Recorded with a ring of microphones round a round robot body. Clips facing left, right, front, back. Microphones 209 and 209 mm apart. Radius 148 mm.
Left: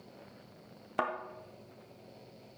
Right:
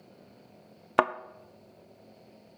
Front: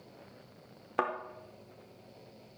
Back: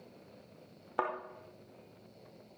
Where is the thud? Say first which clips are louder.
Right 9 dB, front 2 dB; 75° right, 0.6 m.